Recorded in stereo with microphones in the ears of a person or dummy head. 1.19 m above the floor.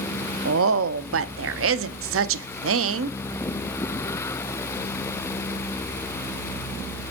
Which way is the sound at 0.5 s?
65° right (ahead or behind).